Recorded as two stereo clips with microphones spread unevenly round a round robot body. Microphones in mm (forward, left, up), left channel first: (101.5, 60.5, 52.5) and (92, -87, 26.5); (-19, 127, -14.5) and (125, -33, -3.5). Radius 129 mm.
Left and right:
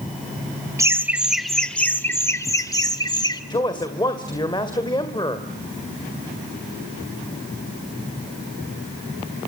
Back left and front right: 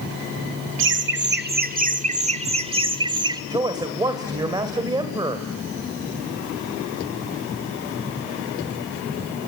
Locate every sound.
0.8 s laughter: 30° right, 1.6 m; by 3.4 s 25° left, 3.5 m
3.5 s a man speaking: 25° left, 2 m